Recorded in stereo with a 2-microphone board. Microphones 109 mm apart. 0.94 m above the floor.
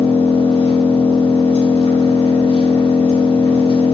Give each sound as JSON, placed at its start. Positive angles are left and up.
{"t": 0.0, "sound": "an engine running", "side_deg": 60, "distance_m": 1.7}